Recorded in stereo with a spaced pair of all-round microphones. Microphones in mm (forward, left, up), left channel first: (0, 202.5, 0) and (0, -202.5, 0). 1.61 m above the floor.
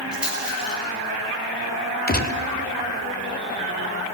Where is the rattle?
Centre (ahead or behind), 3 m.